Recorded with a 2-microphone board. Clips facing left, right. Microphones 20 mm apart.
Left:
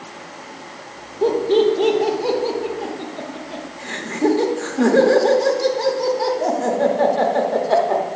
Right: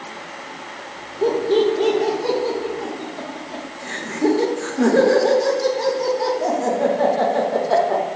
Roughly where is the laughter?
Left.